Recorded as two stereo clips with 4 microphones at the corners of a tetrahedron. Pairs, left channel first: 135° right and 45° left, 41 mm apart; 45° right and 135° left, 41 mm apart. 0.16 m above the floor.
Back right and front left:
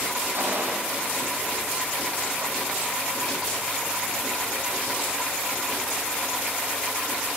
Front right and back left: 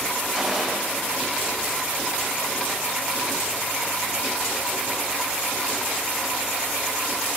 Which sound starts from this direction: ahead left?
A gunshot, at 0.3 s.